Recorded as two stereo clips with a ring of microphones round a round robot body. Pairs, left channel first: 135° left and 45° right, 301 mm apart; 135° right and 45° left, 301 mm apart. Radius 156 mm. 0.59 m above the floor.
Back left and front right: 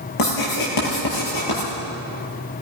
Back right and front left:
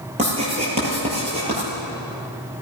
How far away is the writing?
About 8 m.